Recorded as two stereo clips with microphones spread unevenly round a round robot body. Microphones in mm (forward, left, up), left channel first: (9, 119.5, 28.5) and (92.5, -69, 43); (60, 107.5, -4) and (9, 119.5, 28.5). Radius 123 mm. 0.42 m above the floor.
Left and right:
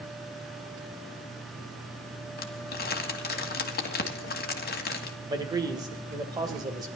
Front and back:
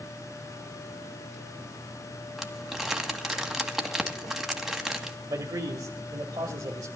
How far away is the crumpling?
About 2 m.